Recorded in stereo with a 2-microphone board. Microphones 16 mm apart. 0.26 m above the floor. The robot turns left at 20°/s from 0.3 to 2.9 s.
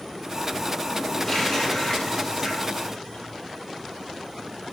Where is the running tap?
25° left (ahead or behind), 5.5 m; by 3.3 s 55° left (ahead or behind), 5.5 m.